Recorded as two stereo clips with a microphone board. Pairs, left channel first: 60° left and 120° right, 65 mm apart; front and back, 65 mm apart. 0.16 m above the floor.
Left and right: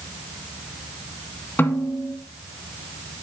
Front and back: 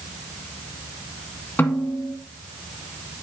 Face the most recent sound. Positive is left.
turn(degrees=35)